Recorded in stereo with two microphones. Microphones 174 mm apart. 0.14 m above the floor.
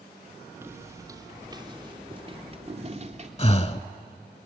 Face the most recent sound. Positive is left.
turn(degrees=35)  # may be behind; listen again after turning